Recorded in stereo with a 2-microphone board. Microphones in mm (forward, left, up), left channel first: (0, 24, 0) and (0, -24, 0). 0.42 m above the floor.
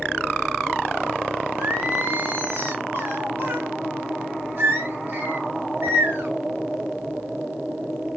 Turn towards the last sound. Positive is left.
turn(degrees=-55)  # may be behind; listen again after turning